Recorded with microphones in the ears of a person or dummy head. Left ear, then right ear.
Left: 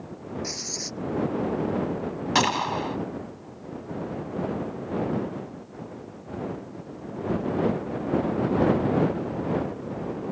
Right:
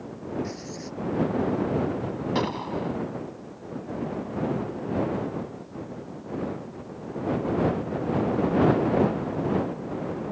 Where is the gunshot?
50° left (ahead or behind).